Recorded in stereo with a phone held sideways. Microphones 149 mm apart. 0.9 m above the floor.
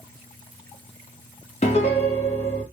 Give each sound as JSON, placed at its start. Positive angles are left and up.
{"t": 1.6, "sound": "a piano", "side_deg": 45, "distance_m": 1.0}